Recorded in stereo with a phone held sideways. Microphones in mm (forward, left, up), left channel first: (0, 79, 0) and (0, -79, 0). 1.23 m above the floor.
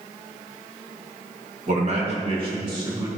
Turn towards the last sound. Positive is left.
turn(degrees=-25)  # may be behind; listen again after turning